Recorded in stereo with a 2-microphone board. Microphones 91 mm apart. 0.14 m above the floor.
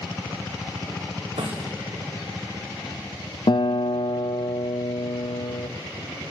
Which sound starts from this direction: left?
A guitar, at 3.5 s.